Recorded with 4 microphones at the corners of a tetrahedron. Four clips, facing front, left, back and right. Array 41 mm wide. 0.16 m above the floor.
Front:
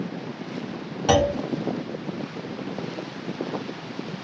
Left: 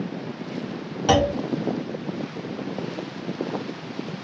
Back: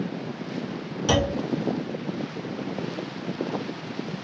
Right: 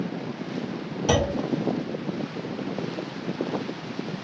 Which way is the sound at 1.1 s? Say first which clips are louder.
Left 4 dB, front 4 dB; 65° left.